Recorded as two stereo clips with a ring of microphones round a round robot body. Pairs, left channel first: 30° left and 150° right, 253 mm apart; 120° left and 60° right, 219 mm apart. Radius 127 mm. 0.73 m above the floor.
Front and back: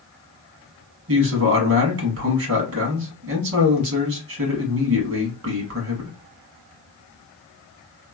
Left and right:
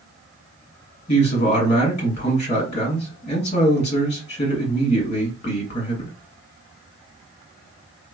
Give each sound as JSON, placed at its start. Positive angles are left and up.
{"t": 1.1, "sound": "a man speaking", "azimuth_deg": -175, "distance_m": 1.3}